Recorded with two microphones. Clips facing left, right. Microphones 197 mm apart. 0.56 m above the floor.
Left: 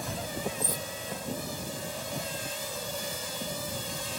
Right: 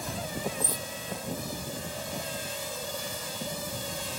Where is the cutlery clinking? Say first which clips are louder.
Even; 45° left (ahead or behind).